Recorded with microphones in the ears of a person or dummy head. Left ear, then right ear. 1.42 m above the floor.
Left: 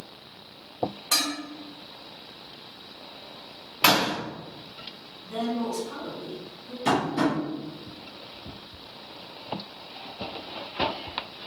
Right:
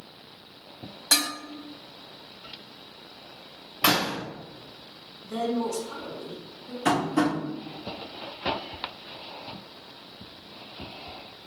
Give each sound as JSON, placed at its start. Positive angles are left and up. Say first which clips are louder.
{"t": 1.1, "sound": "dishes clattering", "louder": "right 2 dB", "side_deg": -70, "distance_m": 1.7}
{"t": 3.8, "sound": "a door slam", "louder": "left 3 dB", "side_deg": 0, "distance_m": 0.6}
{"t": 5.2, "sound": "a woman speaking", "louder": "right 1 dB", "side_deg": -80, "distance_m": 1.9}
{"t": 6.8, "sound": "tapping", "louder": "even", "side_deg": -40, "distance_m": 0.9}